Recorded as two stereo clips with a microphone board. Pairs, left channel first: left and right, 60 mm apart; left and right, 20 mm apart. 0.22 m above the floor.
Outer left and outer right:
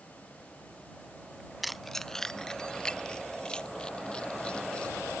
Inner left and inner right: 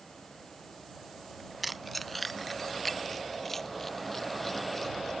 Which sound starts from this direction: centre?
Keys jangling, at 1.6 s.